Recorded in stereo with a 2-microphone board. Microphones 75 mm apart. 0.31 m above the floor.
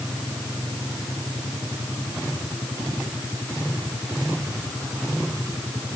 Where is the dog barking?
I don't hear a dog barking.